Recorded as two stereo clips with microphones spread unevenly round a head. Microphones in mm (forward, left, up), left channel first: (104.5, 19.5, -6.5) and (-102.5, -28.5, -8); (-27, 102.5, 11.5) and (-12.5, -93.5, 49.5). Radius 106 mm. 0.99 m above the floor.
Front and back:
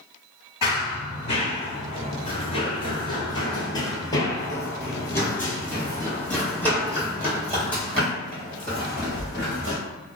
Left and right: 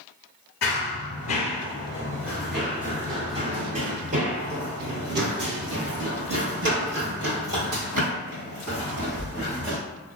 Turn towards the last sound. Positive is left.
turn(degrees=-75)